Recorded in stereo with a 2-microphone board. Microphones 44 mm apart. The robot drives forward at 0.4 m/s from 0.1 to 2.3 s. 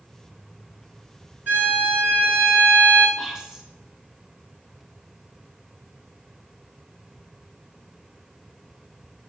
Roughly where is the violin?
Right.